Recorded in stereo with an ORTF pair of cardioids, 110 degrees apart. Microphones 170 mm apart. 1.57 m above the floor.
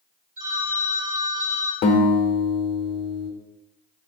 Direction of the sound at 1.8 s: 60° left.